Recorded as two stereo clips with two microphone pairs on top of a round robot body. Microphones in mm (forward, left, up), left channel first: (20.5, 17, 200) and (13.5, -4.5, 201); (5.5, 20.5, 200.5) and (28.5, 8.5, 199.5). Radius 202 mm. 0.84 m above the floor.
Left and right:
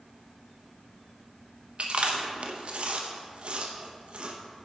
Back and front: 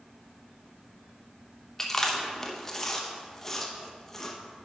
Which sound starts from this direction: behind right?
Chewing, at 1.8 s.